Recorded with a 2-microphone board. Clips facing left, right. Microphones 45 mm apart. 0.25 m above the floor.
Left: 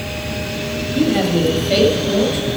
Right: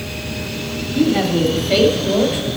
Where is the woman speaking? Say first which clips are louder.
Even; 10° left (ahead or behind), 1.2 m; by 2.5 s 15° right (ahead or behind), 1.2 m.